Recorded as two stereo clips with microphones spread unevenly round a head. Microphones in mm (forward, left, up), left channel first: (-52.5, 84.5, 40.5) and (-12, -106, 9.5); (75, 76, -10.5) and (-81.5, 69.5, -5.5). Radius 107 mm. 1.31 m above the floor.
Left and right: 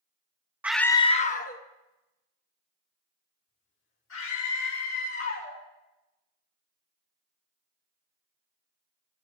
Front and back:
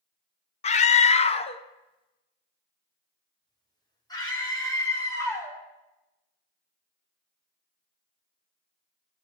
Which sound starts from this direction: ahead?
A scream, at 0.6 s.